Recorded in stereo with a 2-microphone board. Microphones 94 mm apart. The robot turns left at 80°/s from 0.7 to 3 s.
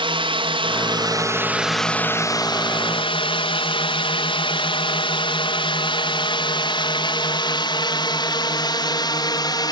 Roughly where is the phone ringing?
I don't hear a phone ringing.